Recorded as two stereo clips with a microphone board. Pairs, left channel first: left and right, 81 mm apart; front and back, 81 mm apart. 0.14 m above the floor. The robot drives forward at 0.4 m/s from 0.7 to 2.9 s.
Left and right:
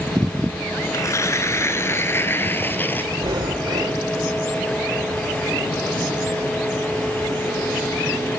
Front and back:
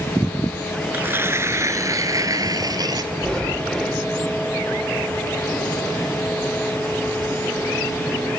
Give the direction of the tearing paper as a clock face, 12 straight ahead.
8 o'clock.